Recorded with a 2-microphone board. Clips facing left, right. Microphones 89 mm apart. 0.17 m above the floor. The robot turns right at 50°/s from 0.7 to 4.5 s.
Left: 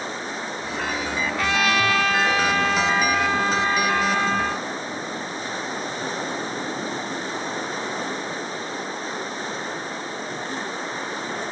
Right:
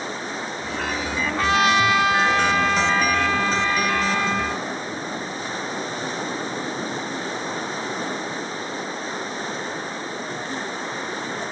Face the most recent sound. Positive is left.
turn(degrees=95)